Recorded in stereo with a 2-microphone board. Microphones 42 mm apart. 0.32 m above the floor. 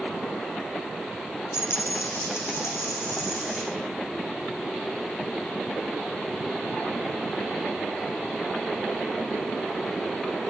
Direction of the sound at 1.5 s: 85° left.